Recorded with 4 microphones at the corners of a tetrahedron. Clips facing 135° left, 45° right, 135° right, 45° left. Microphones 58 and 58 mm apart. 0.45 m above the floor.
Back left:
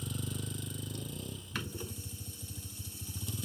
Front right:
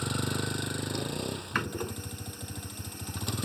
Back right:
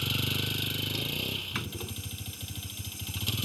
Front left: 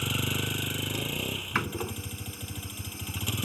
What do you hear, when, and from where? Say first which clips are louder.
0.0 s a vehicle: front right 9 dB, front left 2 dB; 30° right
1.6 s a door slam: front right 8 dB, front left 7 dB; 5° right